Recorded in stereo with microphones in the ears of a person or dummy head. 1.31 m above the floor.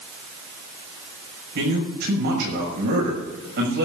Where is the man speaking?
65° right (ahead or behind), 6 m.